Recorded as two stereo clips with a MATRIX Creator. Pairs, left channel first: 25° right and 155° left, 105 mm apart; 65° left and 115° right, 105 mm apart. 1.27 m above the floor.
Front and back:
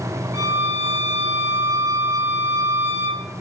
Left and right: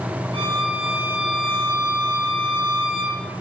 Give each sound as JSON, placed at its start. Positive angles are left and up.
{"t": 0.3, "sound": "a violin", "azimuth_deg": -140, "distance_m": 1.0}